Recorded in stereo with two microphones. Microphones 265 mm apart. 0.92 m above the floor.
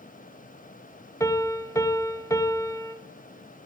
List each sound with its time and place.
1.2 s a piano: 10° left (ahead or behind), 0.6 m